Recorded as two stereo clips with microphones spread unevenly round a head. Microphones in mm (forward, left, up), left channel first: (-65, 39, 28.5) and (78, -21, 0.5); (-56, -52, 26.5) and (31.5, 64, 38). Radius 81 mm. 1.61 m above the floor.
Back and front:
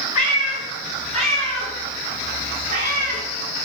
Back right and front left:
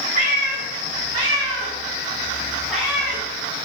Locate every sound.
0.1 s a cat meowing: 40° left, 2 m; by 3.2 s 40° right, 1.9 m